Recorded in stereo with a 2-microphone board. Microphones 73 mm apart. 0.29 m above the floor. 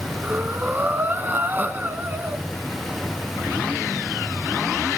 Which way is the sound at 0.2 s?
25° right (ahead or behind).